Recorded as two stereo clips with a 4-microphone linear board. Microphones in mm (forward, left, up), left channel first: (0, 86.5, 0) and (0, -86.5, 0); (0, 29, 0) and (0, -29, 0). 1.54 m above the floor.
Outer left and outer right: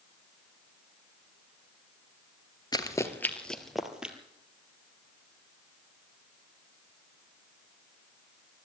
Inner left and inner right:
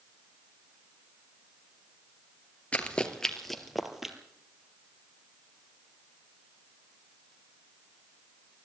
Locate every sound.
2.7 s running footsteps: 25° left (ahead or behind), 1.8 m; by 4.2 s 5° right (ahead or behind), 2.5 m